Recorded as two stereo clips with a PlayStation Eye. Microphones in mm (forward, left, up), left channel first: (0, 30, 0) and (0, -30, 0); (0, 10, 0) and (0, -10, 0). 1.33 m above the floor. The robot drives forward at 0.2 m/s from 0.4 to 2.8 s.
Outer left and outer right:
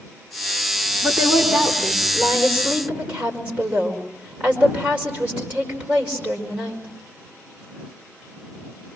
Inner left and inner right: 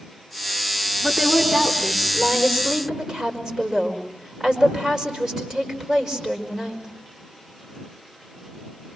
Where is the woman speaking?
25° right (ahead or behind), 4.5 m.